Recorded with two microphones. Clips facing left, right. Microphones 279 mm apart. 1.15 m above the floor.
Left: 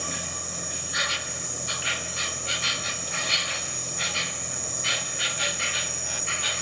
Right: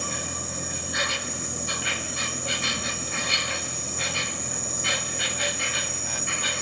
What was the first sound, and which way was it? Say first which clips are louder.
An insect: right 3 dB; 60° right (ahead or behind).